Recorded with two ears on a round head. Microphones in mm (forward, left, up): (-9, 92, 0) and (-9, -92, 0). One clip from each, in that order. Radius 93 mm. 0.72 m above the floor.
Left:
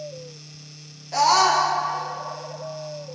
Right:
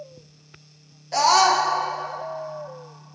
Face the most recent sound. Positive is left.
turn(degrees=-10)  # may be behind; listen again after turning